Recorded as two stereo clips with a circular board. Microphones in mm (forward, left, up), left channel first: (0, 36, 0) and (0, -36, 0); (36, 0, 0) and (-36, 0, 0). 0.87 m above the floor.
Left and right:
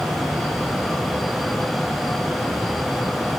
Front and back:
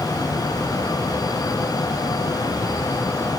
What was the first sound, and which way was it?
Only background noise.